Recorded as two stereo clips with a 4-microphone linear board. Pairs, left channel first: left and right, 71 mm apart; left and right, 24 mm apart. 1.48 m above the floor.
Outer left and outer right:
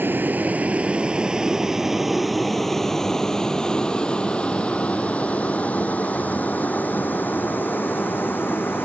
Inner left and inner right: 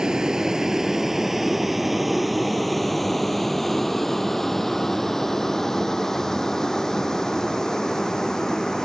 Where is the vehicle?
30° right (ahead or behind); by 8.9 s 30° left (ahead or behind).